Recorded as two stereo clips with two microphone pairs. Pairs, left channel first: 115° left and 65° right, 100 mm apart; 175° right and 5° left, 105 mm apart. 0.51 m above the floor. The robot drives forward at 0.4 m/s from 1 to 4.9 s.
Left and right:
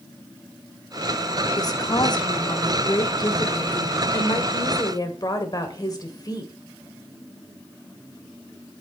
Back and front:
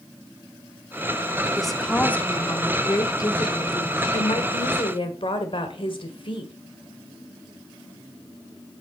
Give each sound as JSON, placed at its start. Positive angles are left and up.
{"t": 1.6, "sound": "a woman speaking", "azimuth_deg": 95, "distance_m": 0.8}